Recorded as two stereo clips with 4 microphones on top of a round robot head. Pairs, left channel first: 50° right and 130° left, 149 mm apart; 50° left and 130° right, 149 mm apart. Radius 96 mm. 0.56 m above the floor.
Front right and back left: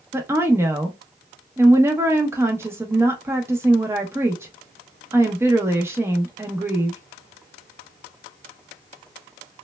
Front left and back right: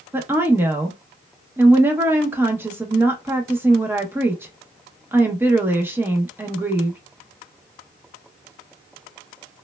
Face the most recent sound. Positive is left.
turn(degrees=175)